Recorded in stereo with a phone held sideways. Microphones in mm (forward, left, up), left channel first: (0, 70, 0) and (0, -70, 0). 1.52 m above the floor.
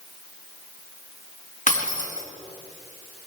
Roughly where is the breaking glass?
Left.